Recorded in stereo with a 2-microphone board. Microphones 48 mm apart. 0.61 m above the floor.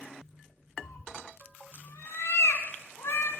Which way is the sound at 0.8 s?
65° left (ahead or behind).